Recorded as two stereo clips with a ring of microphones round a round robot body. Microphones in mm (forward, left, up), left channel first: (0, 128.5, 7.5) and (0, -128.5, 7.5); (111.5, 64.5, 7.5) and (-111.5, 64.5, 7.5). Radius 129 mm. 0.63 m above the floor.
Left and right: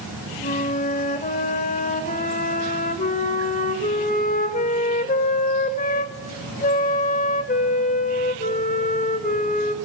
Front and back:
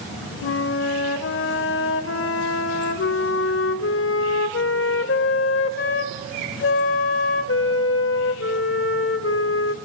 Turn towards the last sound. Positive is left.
turn(degrees=30)